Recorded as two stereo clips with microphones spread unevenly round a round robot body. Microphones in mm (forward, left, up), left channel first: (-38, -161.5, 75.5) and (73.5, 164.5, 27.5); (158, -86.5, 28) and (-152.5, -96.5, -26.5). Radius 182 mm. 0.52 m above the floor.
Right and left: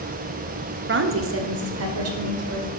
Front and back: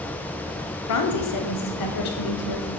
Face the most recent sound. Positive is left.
turn(degrees=30)